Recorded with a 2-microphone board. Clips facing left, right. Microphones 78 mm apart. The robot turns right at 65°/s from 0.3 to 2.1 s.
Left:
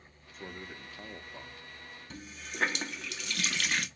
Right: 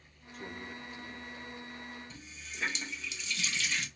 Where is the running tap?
60° left (ahead or behind), 0.6 m.